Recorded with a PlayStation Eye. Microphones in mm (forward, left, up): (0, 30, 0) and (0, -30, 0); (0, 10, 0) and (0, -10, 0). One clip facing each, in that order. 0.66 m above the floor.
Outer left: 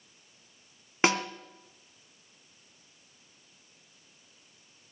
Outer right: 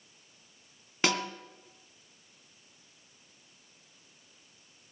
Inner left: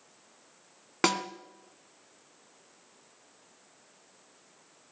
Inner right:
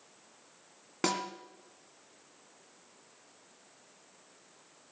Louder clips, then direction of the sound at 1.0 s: Outer left 3 dB, inner left 5 dB; 30° left (ahead or behind).